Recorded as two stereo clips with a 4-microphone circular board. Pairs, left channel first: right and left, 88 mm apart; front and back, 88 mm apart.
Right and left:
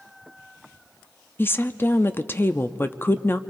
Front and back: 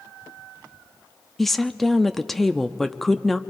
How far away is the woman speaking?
About 0.5 m.